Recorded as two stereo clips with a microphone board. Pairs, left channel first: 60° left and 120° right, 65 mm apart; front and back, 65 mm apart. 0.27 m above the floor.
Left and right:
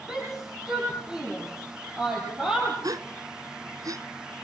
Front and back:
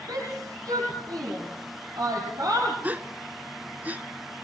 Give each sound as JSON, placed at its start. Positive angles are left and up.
{"t": 0.1, "sound": "a shout", "azimuth_deg": 170, "distance_m": 8.5}
{"t": 2.8, "sound": "a gasp", "azimuth_deg": -115, "distance_m": 1.0}